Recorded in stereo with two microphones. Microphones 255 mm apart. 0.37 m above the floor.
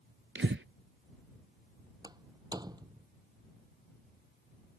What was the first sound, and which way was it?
Breathing, 50° right (ahead or behind).